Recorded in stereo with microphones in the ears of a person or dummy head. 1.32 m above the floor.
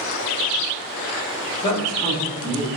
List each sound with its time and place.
1.6 s a man speaking: 30° left (ahead or behind), 5 m; by 2.7 s 25° left (ahead or behind), 4.5 m